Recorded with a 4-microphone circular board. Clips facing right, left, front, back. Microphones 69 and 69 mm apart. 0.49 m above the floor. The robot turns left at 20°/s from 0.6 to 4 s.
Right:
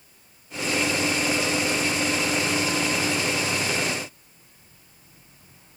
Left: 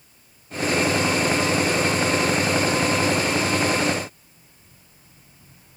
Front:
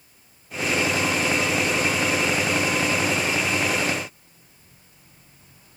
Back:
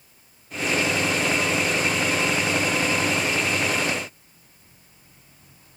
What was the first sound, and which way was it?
Only background noise.